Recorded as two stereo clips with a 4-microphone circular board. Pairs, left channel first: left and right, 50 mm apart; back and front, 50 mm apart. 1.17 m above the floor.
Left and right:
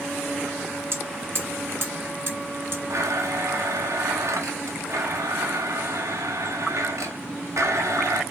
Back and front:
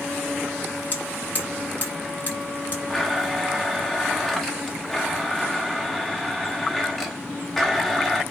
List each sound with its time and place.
0.9 s hammering: 125° right, 5 m
2.9 s a blender: 95° right, 3 m